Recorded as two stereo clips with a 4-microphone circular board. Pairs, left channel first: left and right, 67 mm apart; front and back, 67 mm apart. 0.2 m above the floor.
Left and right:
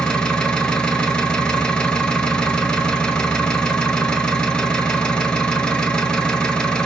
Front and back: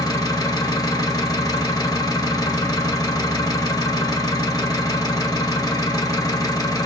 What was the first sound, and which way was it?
An engine running, 15° left.